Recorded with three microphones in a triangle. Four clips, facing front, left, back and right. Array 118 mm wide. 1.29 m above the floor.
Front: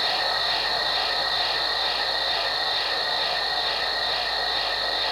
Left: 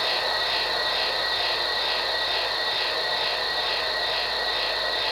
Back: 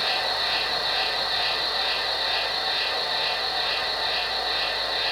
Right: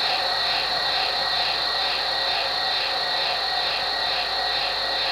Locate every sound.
0.0 s an insect: 110° right, 3 m